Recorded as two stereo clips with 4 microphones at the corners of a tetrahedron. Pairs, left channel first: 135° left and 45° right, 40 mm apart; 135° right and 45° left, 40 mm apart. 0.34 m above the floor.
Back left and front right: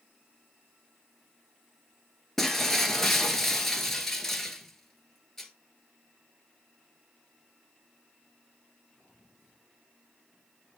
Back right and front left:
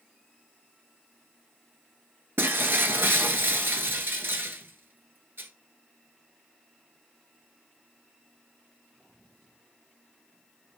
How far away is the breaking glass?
About 1.1 m.